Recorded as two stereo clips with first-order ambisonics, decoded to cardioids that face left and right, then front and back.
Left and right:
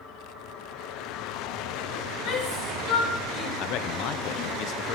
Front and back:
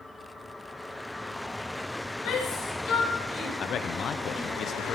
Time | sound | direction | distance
2.2 | a shout | 55° left | 4.5 m
3.6 | a man speaking | 60° left | 0.7 m